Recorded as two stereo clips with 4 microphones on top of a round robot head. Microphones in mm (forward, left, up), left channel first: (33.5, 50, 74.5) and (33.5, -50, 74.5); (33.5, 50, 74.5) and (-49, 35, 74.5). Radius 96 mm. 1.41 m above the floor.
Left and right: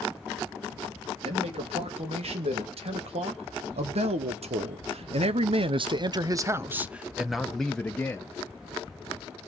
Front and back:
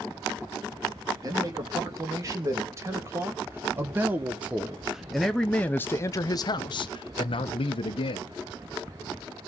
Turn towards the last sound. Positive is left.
turn(degrees=15)